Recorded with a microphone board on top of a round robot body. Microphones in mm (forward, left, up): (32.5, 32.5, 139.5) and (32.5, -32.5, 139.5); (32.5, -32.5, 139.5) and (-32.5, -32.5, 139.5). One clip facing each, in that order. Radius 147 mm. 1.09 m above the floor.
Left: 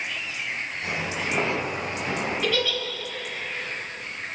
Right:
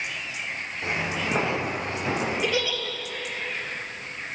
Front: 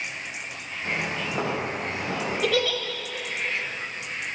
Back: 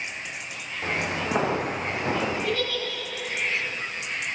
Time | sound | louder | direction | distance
0.8 | footsteps | right 3 dB, back 1 dB | 145° right | 9 m
2.4 | a giggle | left 1 dB, front 3 dB | 15° right | 3 m